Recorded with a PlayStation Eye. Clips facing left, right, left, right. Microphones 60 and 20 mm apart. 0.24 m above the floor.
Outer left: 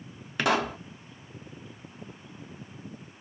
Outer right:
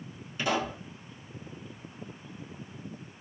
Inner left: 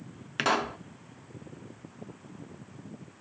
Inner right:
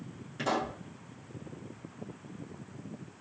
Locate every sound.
0.4 s a pop: 80° left, 0.7 m